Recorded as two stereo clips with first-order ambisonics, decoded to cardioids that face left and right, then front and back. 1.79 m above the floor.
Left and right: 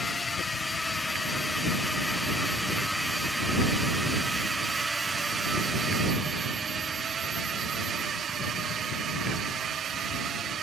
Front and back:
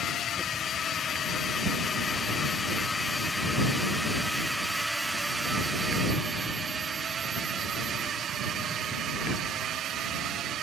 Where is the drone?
20° left; by 10.6 s 140° right.